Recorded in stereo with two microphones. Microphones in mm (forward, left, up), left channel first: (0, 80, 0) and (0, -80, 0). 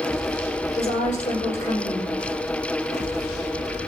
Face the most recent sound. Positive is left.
turn(degrees=45)  # may be behind; listen again after turning